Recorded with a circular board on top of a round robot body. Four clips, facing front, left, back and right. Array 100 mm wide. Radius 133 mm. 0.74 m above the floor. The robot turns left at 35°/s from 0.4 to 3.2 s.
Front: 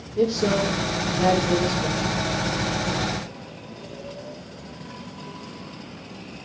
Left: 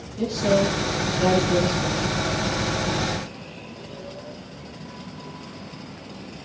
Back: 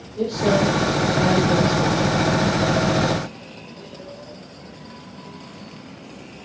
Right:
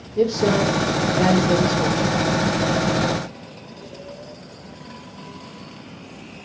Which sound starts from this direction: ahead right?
A man speaking, at 0.2 s.